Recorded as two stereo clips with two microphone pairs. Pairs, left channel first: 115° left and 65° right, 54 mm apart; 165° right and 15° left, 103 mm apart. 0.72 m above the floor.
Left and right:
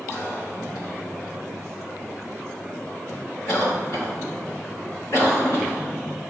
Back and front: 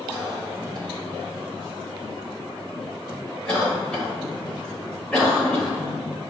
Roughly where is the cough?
Behind left.